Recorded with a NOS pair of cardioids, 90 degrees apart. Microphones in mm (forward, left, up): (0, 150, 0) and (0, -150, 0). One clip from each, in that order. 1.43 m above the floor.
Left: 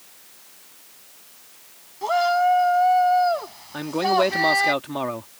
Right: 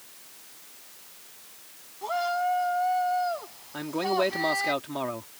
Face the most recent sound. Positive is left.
turn(degrees=25)